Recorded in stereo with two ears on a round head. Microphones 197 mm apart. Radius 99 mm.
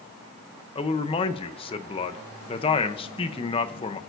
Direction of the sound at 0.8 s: 25° left (ahead or behind).